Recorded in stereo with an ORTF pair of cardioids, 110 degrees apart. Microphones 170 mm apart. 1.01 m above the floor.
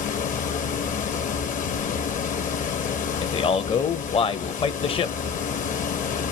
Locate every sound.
0.0 s a fan: 50° left, 0.7 m
3.2 s a man speaking: 35° left, 0.6 m